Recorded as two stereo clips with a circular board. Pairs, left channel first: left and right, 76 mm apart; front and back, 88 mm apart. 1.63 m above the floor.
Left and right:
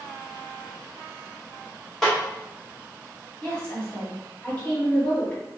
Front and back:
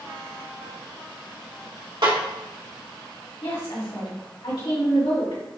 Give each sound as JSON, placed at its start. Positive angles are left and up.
{"t": 2.0, "sound": "a snare drum", "azimuth_deg": 175, "distance_m": 1.9}
{"t": 3.4, "sound": "a woman speaking", "azimuth_deg": 15, "distance_m": 2.0}